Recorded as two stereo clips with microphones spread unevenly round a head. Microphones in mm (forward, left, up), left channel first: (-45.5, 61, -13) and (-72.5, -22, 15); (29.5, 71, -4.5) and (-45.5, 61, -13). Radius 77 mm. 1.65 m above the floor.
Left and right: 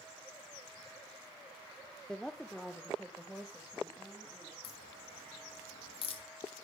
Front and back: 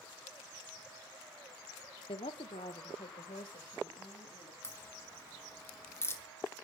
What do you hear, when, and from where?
2.1 s a woman speaking: 15° right, 0.9 m; by 4.5 s 20° right, 3.5 m
4.6 s a crack: 65° left, 2.5 m